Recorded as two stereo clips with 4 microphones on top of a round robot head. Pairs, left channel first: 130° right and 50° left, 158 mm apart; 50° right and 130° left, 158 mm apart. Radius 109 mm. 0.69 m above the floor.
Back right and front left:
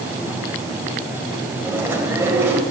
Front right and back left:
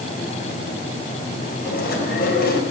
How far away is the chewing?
About 4 m.